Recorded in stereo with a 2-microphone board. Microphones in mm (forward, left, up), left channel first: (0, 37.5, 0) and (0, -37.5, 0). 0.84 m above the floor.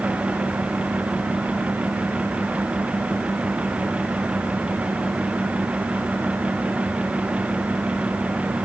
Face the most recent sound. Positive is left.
No sound to turn to.